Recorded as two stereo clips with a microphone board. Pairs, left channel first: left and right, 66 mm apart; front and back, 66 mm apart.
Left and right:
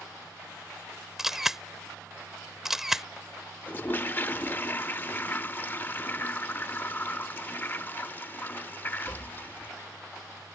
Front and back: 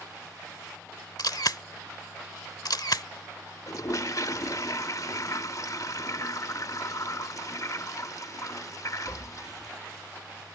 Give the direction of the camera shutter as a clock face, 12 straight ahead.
12 o'clock.